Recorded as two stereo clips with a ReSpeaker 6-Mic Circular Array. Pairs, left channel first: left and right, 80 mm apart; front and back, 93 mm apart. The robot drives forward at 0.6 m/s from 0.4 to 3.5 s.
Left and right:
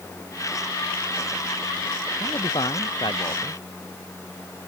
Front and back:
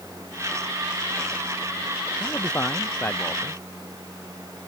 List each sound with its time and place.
2.2 s a man speaking: 65° left